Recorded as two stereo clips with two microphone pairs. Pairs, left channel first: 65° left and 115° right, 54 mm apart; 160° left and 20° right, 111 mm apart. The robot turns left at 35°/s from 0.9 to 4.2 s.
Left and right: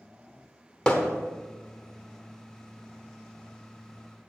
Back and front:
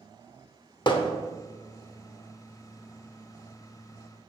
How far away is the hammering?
About 0.9 m.